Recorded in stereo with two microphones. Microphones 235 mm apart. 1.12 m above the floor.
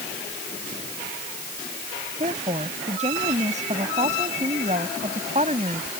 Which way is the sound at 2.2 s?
30° right (ahead or behind).